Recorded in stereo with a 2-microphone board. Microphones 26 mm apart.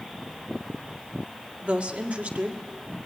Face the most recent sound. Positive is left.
turn(degrees=-70)  # may be behind; listen again after turning